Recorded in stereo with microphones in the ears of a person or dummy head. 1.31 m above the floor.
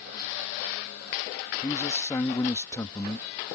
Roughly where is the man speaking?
Centre.